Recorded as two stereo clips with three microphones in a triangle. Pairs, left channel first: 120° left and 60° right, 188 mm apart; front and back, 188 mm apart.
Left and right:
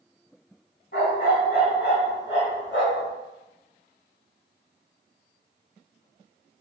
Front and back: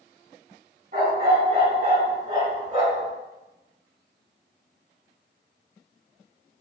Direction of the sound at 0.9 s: 145° left.